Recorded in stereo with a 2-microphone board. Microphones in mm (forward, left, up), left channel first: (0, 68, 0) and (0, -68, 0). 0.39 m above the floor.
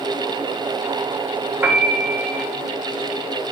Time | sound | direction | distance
1.6 | a piano | 10° right (ahead or behind) | 1.1 m